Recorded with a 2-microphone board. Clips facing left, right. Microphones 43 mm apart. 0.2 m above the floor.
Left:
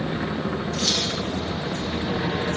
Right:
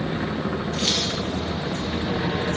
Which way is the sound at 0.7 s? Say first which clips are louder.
Even; 35° right (ahead or behind).